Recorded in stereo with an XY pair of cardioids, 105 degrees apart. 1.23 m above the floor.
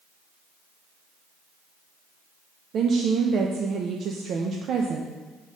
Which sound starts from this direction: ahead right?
A woman speaking, at 2.7 s.